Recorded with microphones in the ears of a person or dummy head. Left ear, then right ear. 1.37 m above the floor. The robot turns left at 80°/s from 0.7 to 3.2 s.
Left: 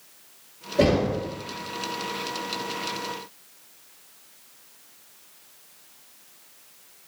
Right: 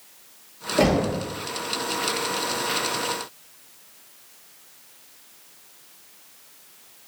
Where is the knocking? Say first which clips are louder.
Even; 95° right, 1.4 m; by 1.2 s 125° right, 1.4 m.